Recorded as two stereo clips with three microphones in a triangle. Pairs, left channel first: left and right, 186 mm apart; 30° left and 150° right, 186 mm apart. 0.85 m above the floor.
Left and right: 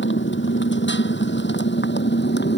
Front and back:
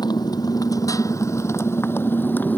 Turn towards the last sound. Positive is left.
turn(degrees=110)